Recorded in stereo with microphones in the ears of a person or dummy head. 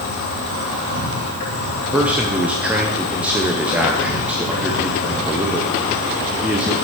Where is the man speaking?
5° right (ahead or behind), 0.8 m.